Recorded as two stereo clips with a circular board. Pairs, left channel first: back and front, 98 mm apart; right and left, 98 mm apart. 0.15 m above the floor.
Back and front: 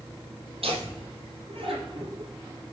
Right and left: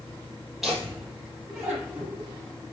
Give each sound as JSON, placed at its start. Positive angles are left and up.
{"t": 0.6, "sound": "laughter", "azimuth_deg": 0, "distance_m": 4.5}